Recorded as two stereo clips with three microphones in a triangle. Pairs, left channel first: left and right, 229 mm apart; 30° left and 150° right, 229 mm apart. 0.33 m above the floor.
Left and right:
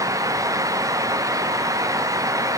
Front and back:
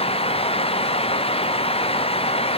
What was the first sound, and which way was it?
Only background noise.